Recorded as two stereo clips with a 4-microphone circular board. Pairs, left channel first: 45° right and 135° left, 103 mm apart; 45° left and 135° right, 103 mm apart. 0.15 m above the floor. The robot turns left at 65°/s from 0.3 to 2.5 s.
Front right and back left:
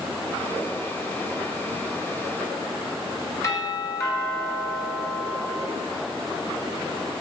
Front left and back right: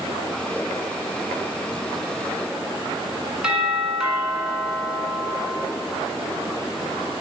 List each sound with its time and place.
3.4 s a doorbell: 60° right, 1.6 m